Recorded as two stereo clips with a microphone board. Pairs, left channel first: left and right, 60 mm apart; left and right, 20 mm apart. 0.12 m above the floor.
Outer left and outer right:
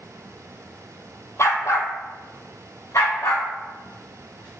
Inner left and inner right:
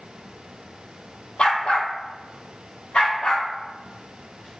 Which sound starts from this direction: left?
A dog barking, at 1.4 s.